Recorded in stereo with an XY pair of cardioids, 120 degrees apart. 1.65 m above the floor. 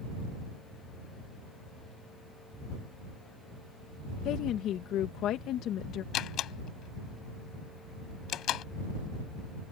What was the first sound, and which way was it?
A woman speaking, 65° left.